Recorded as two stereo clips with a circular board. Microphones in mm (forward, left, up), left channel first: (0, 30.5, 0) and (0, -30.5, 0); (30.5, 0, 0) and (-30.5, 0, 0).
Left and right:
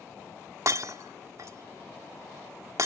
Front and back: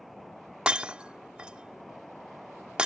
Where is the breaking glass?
110° right.